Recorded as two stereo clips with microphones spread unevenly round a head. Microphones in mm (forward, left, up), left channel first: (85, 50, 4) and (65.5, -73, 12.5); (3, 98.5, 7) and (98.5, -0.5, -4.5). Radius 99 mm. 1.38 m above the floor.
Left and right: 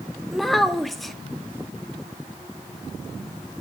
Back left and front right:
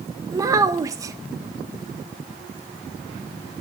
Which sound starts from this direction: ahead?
A child speaking, at 0.3 s.